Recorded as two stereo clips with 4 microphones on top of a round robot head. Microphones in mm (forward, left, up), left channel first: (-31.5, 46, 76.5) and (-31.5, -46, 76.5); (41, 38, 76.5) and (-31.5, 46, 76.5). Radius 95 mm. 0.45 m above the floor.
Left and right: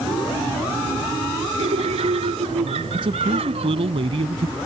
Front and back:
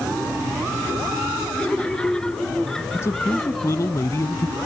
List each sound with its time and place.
1.6 s laughter: 85° right; by 3.9 s 95° right
2.9 s a man speaking: 65° right